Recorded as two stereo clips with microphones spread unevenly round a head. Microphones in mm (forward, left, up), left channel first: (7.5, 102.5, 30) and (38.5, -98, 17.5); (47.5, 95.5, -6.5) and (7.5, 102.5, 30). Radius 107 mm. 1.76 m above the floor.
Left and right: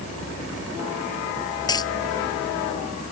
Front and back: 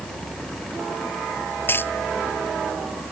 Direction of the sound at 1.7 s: 30° left.